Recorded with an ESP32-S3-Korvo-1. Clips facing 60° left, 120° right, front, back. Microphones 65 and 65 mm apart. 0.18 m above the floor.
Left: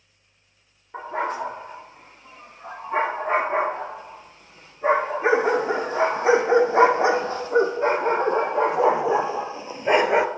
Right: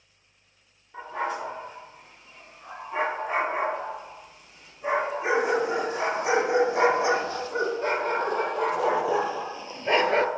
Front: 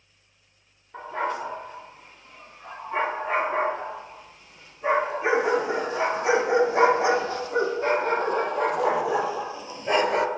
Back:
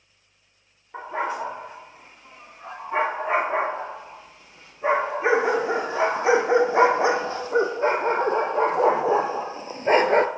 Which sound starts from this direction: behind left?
A dog barking, at 0.9 s.